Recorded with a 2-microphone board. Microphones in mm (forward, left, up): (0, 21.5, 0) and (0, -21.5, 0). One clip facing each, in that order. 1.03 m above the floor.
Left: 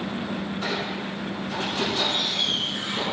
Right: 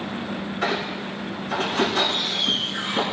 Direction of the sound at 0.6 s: 65° right (ahead or behind).